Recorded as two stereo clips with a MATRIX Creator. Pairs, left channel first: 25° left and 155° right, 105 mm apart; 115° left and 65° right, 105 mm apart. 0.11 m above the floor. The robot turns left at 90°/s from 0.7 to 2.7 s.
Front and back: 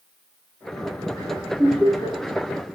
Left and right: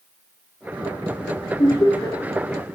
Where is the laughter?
100° left, 2 m; by 2.2 s 50° left, 2 m.